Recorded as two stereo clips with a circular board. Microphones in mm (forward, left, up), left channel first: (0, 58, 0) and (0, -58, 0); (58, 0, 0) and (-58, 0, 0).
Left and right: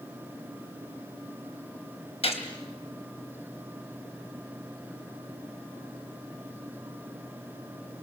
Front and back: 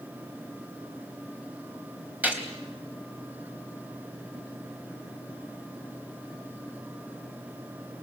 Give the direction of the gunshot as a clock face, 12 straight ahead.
9 o'clock.